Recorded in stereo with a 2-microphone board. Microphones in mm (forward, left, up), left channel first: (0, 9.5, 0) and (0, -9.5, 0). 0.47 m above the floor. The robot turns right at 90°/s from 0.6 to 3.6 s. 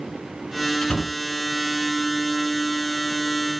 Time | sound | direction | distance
0.8 | a door slam | 55° left (ahead or behind) | 3.5 m